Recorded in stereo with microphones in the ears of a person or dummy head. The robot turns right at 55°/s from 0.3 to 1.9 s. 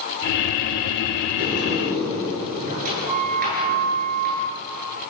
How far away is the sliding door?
About 9.5 m.